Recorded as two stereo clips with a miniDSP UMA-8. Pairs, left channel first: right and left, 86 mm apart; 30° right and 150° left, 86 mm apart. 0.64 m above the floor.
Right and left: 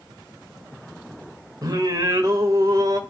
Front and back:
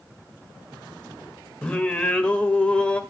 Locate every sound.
1.6 s singing: 45° left, 1.4 m